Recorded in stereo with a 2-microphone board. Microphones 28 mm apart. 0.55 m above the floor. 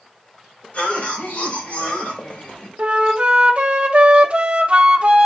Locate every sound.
0.7 s a cough: 55° left (ahead or behind), 3 m
2.8 s a flute: 45° right (ahead or behind), 0.8 m